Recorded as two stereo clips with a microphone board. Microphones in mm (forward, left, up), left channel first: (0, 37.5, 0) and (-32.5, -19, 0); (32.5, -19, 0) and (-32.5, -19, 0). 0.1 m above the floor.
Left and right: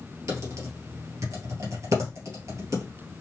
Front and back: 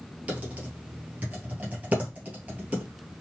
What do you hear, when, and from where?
0.3 s typing on a keyboard: 120° right, 1.6 m